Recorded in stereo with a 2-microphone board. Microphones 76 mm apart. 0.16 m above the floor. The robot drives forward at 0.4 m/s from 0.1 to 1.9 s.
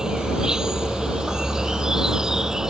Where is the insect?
10° right (ahead or behind); by 2.7 s 5° right (ahead or behind).